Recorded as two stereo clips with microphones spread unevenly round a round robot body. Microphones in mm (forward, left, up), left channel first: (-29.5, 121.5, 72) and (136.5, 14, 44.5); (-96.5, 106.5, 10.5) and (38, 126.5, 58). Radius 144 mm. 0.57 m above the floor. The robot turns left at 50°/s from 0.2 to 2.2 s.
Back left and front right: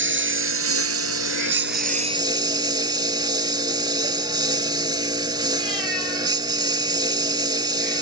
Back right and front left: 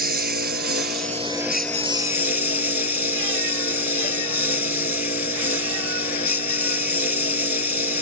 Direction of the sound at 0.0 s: 10° right.